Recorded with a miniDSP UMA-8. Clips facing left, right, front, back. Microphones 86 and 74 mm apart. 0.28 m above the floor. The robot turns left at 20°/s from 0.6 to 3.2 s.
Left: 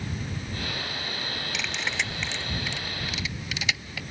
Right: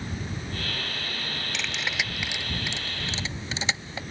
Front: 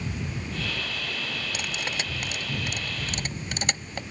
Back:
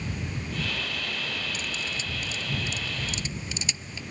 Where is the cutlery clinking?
5° left; by 4.0 s 30° right.